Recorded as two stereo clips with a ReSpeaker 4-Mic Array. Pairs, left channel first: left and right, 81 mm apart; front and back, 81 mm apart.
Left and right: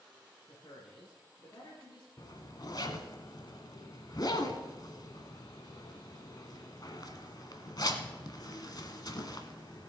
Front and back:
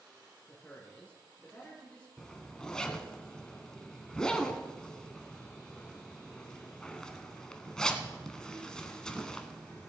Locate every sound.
0.5 s a man speaking: 70° left, 2.5 m
2.2 s a zipper: 80° left, 1.1 m